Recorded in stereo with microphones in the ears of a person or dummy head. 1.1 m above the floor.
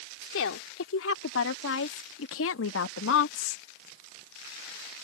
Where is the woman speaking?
85° left; by 3.6 s 75° left (ahead or behind).